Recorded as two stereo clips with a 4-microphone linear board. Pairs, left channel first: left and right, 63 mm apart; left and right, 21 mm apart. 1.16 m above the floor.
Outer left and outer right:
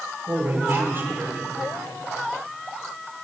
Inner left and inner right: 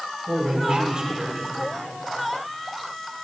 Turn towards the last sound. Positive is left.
turn(degrees=-40)  # may be behind; listen again after turning